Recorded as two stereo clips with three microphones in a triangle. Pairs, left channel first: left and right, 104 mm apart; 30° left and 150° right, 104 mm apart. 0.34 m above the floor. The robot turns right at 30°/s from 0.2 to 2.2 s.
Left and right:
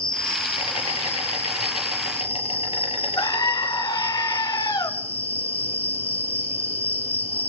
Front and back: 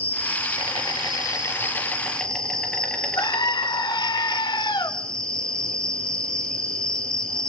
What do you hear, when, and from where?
0.0 s an insect: 55° left, 6 m; by 7.5 s 115° left, 6 m
3.2 s a scream: 55° left, 1.4 m